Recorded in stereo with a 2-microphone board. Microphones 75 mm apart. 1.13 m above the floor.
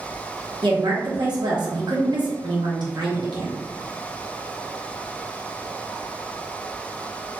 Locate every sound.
0.6 s a woman speaking: 75° right (ahead or behind), 0.8 m